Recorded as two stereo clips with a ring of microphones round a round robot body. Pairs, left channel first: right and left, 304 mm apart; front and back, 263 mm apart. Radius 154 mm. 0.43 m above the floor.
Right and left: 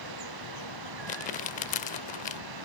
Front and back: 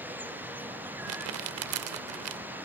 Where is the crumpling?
155° right.